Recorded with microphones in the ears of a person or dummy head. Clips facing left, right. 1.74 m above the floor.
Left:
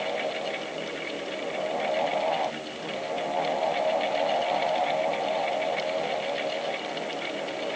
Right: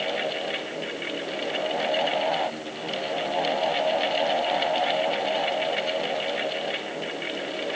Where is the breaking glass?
I don't hear breaking glass.